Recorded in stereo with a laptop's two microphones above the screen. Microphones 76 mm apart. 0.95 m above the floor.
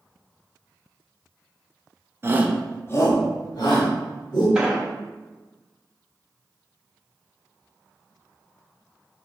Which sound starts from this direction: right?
A shout, at 2.2 s.